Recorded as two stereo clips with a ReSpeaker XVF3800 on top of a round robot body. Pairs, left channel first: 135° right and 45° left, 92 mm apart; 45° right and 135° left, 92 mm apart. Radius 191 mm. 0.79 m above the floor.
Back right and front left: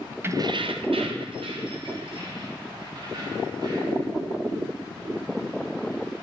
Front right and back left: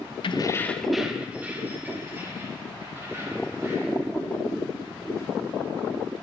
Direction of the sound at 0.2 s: 20° right.